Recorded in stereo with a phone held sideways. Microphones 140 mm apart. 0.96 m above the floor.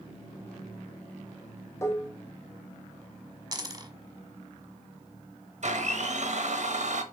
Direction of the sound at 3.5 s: 25° right (ahead or behind).